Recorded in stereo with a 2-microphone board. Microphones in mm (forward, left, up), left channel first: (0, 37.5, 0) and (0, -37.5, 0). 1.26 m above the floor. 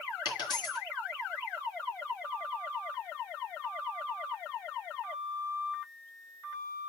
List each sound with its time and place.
0.2 s a dropped coin: 70° left (ahead or behind), 4 m